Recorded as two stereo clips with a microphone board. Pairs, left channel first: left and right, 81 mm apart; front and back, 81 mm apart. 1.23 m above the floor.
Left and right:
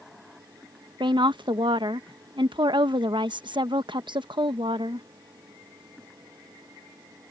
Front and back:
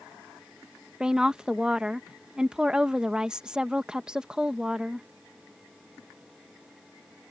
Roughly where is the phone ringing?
No phone ringing in this recording.